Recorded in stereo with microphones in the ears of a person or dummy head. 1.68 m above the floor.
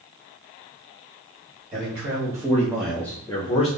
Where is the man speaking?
30° right (ahead or behind), 1.2 m; by 3.7 s 35° left (ahead or behind), 0.6 m.